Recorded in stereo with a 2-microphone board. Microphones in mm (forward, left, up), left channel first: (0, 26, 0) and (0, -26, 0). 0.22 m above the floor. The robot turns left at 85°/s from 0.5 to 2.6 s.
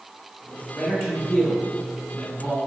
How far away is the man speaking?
About 1.9 m.